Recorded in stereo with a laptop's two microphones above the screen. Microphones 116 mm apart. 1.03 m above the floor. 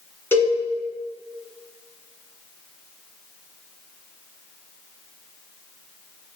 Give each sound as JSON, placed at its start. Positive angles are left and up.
{"t": 0.3, "sound": "a cowbell", "side_deg": 20, "distance_m": 2.5}